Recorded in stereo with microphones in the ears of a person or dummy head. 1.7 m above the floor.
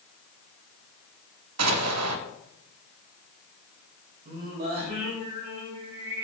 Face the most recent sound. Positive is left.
turn(degrees=-50)  # may be behind; listen again after turning